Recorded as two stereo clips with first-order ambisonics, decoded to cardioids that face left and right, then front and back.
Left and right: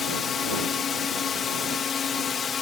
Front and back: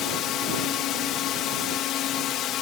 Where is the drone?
30° left.